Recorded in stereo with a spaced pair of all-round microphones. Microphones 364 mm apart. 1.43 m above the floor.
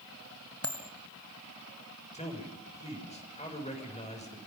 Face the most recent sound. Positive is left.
turn(degrees=20)  # may be behind; listen again after turning